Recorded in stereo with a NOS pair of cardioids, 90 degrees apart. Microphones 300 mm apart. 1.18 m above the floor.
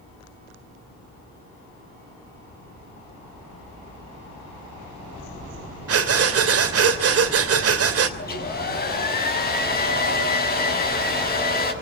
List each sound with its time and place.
5.9 s breathing: 50° right, 3 m
8.2 s a hair dryer: 30° left, 6 m